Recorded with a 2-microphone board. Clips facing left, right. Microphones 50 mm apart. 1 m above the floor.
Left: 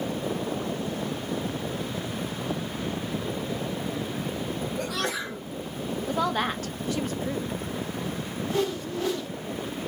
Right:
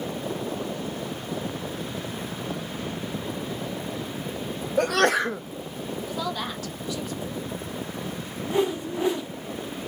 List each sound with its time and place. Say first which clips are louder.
4.8 s a sneeze: right 13 dB; 55° right (ahead or behind), 0.5 m
6.1 s a woman speaking: left 6 dB; 40° left (ahead or behind), 0.7 m
8.5 s a whoosh: right 4 dB; 20° right (ahead or behind), 0.5 m